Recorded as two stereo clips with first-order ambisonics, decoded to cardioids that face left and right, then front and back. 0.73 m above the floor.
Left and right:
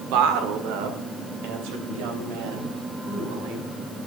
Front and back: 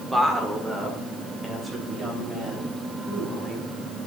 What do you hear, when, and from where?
0.1 s a woman speaking: 100° right, 1.6 m; by 3.7 s 105° right, 4 m